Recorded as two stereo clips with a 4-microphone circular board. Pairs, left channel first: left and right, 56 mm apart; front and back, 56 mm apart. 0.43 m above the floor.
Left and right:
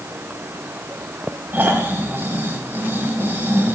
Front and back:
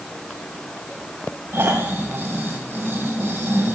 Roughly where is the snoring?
Behind right.